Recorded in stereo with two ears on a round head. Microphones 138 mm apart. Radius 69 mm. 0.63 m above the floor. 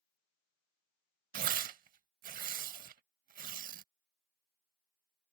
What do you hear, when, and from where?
1.3 s tearing paper: 55° right (ahead or behind)